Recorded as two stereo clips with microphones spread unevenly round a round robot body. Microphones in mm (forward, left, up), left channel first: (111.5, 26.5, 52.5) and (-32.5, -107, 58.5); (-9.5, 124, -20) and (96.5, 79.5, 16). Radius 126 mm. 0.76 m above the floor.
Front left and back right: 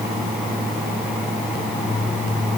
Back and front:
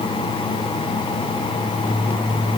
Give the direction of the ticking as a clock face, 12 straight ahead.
I don't hear ticking.